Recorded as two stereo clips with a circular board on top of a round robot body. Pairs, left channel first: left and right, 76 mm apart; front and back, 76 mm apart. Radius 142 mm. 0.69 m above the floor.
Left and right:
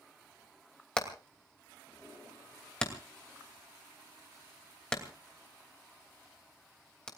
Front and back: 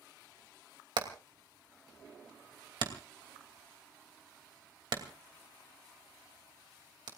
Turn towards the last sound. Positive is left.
turn(degrees=170)